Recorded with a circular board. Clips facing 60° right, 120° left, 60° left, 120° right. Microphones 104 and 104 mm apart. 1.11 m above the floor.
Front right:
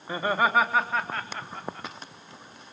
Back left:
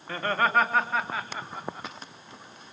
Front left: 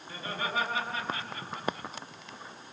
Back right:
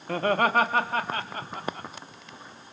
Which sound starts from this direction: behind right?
Laughter, at 0.1 s.